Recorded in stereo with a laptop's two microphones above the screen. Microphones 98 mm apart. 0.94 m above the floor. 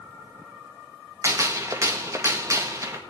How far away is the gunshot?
About 1.4 m.